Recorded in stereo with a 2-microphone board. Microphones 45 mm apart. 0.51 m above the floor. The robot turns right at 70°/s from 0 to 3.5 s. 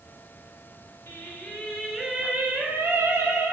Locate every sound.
1.1 s singing: 115° left, 1.1 m; by 3.5 s 75° right, 1.1 m